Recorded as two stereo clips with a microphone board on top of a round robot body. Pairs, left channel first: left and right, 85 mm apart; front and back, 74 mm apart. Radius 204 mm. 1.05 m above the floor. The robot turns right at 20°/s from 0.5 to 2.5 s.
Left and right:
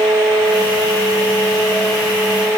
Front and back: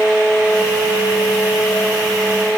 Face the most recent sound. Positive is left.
No sound to turn to.